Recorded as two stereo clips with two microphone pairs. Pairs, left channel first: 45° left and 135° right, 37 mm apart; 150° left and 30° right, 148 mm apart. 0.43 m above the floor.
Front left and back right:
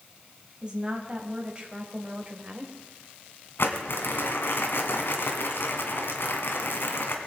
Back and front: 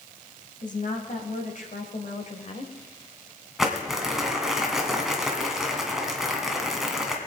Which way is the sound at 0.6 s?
165° left.